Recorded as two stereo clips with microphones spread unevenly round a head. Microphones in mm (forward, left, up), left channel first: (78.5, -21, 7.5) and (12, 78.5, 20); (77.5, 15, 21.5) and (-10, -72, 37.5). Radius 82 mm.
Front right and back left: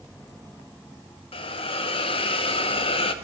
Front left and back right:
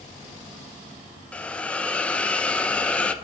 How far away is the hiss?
About 0.6 m.